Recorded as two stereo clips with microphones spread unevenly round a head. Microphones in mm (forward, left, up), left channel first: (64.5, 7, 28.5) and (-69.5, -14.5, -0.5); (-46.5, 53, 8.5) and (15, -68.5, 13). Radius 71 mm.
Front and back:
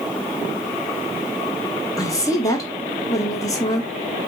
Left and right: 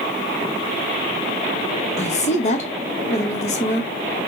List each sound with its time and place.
2.0 s a woman speaking: 80° left, 1.1 m